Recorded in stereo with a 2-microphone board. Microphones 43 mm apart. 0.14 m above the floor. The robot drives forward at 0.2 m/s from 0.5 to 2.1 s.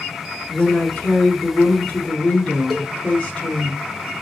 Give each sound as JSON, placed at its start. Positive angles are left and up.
{"t": 0.5, "sound": "a woman speaking", "side_deg": 20, "distance_m": 1.1}
{"t": 2.7, "sound": "a cowbell", "side_deg": 5, "distance_m": 1.0}